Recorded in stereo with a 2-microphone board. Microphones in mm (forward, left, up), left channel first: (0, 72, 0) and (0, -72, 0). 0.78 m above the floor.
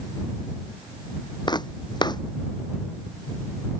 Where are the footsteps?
30° left (ahead or behind).